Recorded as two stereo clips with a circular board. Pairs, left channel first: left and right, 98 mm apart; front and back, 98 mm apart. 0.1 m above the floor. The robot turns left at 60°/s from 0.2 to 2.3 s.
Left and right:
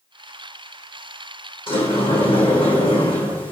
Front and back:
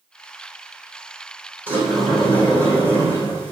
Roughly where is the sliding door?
Left.